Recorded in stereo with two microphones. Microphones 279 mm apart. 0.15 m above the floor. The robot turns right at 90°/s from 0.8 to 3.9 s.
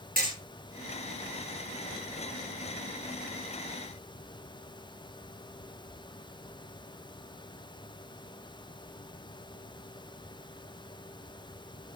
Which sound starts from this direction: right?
Hammering, at 0.2 s.